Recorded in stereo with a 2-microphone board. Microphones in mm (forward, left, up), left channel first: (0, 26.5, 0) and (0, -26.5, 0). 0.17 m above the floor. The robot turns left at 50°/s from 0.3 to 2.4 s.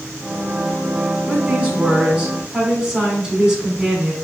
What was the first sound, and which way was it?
A woman speaking, 100° right.